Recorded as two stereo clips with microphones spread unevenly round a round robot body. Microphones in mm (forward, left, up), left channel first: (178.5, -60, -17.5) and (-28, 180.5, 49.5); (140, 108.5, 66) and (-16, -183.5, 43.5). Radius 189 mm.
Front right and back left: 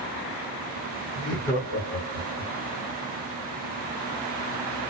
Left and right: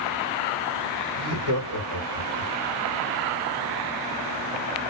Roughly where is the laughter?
Right.